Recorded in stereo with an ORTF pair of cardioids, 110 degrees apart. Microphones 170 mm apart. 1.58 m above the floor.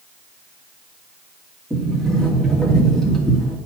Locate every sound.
1.7 s a sliding door: 5° left, 2.5 m